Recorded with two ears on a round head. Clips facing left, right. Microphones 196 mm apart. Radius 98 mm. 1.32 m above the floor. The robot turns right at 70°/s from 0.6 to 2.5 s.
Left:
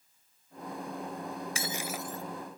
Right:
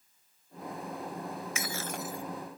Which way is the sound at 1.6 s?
150° left.